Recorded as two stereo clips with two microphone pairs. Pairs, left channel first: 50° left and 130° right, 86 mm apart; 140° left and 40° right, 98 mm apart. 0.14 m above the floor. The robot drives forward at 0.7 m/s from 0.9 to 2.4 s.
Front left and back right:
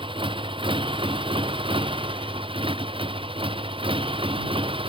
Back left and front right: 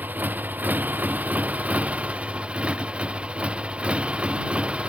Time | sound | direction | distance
0.0 | a motorcycle | 115° right | ?